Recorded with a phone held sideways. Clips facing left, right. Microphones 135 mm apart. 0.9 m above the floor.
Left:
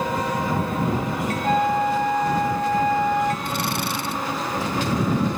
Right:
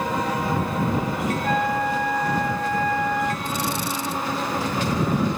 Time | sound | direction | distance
1.4 | a flute | 20° left (ahead or behind) | ?
3.5 | a drill | 70° left (ahead or behind) | ?